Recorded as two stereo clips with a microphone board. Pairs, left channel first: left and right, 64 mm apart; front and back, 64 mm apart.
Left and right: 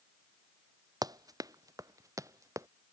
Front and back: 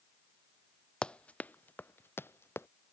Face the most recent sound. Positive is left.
turn(degrees=-50)